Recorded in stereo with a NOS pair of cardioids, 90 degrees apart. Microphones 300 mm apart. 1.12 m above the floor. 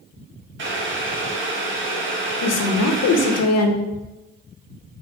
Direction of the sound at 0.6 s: 40° right.